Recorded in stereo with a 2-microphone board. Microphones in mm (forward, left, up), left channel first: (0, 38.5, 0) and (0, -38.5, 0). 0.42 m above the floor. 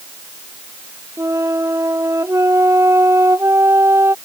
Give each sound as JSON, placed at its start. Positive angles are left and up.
{"t": 1.2, "sound": "a flute", "side_deg": -40}